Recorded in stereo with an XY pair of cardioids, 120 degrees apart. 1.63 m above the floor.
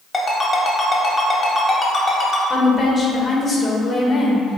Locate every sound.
0.1 s a ringtone: 30° left, 2.0 m
2.5 s a woman speaking: 35° left, 1.7 m